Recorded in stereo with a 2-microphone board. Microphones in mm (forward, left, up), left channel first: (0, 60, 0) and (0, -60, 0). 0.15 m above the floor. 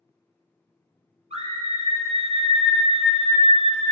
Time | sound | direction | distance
1.3 | a scream | 65° right (ahead or behind) | 3 m